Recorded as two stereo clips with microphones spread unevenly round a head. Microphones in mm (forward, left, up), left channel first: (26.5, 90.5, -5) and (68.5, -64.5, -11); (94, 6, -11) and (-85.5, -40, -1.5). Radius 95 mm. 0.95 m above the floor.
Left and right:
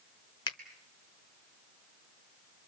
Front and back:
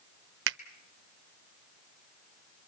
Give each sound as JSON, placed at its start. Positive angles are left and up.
{"t": 0.5, "sound": "a finger snap", "azimuth_deg": 170, "distance_m": 1.0}